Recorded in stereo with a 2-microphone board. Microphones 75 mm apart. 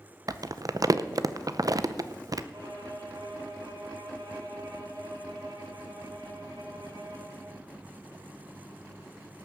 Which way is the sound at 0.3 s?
55° right (ahead or behind).